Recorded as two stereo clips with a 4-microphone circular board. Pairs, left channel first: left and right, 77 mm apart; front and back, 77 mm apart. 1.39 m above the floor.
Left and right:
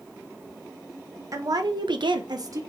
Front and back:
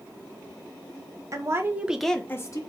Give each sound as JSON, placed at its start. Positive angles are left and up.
{"t": 1.3, "sound": "a woman speaking", "azimuth_deg": -135, "distance_m": 1.3}